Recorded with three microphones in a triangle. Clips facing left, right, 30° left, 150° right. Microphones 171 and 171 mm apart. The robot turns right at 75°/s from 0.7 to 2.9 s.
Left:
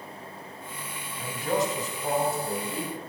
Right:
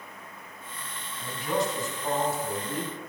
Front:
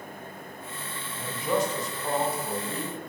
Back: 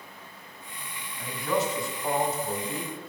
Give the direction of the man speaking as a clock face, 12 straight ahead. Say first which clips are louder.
Left 1 dB, front 1 dB; 10 o'clock.